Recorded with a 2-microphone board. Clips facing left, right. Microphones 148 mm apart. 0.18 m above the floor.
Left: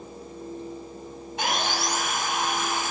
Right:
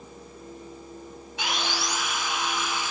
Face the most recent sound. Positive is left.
turn(degrees=50)  # may be behind; listen again after turning